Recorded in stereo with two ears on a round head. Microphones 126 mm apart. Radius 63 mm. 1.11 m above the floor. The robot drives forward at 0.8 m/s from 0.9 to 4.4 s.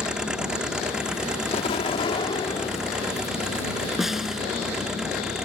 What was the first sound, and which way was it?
An engine running, 5° right (ahead or behind).